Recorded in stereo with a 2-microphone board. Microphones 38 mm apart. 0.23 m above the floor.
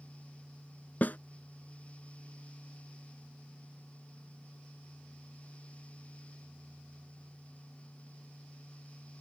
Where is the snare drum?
50° left (ahead or behind).